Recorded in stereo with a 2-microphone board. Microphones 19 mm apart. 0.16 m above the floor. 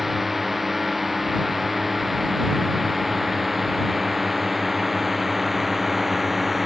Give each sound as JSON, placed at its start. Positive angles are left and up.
{"t": 0.0, "sound": "a drone", "side_deg": -10}